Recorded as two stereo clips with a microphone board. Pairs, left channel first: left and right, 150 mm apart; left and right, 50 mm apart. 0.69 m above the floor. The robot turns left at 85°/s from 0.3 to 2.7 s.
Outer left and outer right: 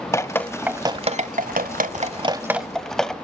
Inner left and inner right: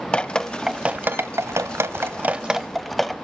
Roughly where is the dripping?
Centre.